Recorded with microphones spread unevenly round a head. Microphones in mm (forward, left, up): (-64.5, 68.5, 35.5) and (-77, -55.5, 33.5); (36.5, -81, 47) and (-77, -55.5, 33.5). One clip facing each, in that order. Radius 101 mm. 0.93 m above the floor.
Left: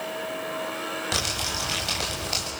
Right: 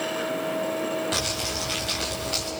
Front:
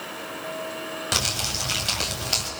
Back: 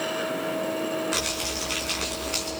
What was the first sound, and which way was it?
Crumpling, 20° left.